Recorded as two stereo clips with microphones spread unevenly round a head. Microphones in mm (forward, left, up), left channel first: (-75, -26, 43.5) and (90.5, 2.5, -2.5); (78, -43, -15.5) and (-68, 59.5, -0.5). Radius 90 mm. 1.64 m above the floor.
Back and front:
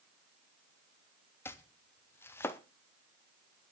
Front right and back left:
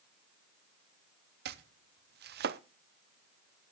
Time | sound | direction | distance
1.4 | chopping | 120° left | 0.8 m